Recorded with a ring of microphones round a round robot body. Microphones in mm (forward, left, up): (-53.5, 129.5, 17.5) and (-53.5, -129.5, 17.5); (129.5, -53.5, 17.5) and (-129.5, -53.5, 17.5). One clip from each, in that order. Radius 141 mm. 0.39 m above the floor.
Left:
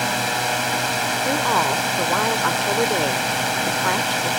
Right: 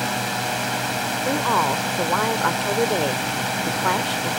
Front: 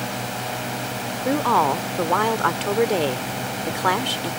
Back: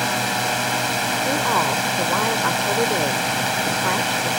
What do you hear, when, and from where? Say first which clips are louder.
0.0 s a drone: left 3 dB, back 7 dB; 145° left
1.2 s a woman speaking: even, front 4 dB; 5° left